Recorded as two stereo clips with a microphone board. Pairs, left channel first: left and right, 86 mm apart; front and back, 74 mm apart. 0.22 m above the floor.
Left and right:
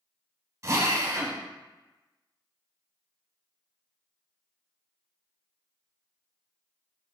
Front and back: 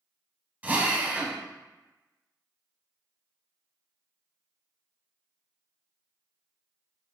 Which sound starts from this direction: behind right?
A drill, at 0.6 s.